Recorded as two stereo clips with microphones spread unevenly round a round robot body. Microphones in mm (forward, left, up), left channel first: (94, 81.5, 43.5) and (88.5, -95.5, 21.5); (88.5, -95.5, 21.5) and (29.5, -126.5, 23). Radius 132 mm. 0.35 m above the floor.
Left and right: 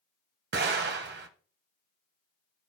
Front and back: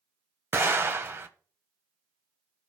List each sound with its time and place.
0.5 s an explosion: 100° right, 1.0 m